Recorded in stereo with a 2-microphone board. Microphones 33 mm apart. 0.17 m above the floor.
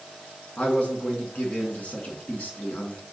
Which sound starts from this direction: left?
A man speaking, at 0.6 s.